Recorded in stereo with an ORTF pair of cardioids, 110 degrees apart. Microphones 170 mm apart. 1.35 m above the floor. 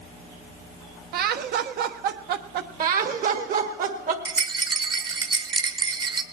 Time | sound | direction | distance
1.1 | laughter | 70° right | 1.0 m
2.8 | laughter | 55° right | 1.9 m
4.2 | a rattle | 30° right | 1.0 m